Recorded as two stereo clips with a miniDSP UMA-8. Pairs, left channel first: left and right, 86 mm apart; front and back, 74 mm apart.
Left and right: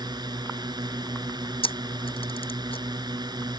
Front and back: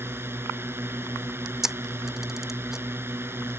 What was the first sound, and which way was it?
A drone, 125° right.